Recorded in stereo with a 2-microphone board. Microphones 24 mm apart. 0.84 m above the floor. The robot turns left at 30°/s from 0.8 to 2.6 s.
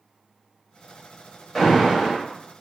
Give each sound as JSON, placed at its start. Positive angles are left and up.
{"t": 1.6, "sound": "an alarm", "side_deg": 5, "distance_m": 1.2}